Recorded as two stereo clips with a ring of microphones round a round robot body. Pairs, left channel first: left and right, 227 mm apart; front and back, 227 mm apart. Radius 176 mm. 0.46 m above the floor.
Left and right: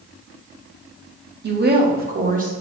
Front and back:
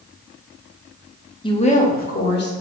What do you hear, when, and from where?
1.4 s a woman speaking: 65° right, 1.1 m; by 2.5 s 35° right, 1.6 m